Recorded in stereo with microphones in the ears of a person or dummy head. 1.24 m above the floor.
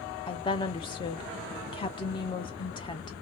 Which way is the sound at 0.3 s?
20° left (ahead or behind).